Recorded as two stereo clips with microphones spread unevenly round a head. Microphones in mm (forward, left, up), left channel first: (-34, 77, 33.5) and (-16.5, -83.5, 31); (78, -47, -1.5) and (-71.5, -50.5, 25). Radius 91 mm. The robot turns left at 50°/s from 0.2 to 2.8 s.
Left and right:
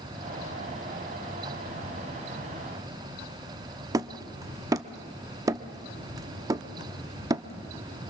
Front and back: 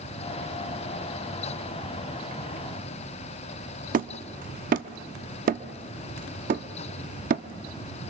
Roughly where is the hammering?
Behind right.